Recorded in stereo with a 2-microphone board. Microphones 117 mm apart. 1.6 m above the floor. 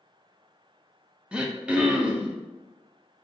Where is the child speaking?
No child speaking in this recording.